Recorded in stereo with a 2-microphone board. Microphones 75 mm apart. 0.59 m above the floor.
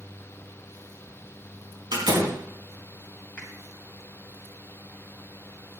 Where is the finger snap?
15° left (ahead or behind), 3 m.